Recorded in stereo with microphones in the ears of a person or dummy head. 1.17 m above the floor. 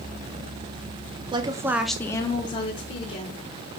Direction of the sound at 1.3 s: 15° right (ahead or behind).